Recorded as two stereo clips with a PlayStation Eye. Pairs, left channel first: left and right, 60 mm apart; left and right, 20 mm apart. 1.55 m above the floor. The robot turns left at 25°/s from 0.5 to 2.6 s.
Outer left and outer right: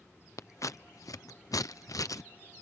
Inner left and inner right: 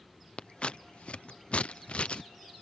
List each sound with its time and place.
0.4 s scissors: 60° left (ahead or behind); by 2.2 s 75° left (ahead or behind)